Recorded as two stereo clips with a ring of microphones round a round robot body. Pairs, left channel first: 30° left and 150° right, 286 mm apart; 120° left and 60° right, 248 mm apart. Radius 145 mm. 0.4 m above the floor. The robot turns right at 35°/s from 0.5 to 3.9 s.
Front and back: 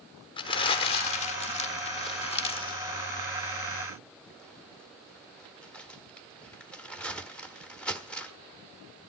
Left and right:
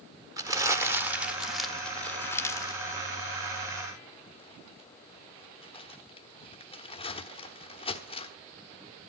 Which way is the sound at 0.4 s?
10° right.